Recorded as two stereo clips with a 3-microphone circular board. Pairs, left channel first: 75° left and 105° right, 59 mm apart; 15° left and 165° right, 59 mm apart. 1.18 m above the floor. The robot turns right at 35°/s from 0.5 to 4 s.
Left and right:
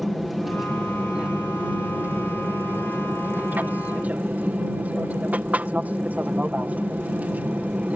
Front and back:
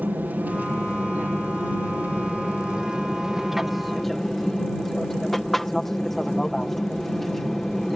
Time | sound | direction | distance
0.0 | an aircraft | 170° left | ?